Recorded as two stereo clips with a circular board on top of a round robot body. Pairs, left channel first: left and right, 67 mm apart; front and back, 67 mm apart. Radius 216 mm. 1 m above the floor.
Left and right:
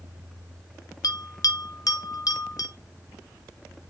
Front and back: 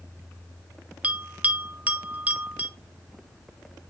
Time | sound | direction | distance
1.0 | a bell | 110° left | 1.3 m